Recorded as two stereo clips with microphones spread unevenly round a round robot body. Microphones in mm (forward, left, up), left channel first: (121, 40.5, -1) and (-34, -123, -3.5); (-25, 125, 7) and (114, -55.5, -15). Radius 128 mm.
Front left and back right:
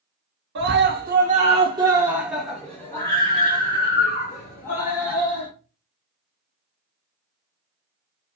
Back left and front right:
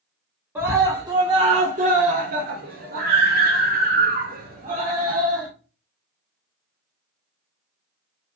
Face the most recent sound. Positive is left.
turn(degrees=-5)